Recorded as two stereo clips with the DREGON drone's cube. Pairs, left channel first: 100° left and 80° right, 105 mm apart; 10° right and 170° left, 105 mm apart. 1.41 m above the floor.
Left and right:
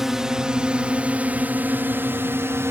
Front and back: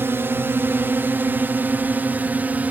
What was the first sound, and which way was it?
A drone, 160° right.